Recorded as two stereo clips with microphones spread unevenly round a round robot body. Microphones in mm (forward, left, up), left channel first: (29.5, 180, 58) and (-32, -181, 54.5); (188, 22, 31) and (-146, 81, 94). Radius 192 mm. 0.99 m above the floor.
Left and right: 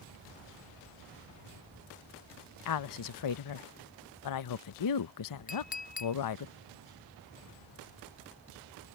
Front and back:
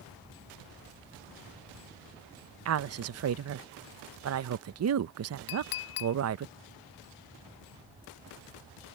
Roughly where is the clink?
Ahead.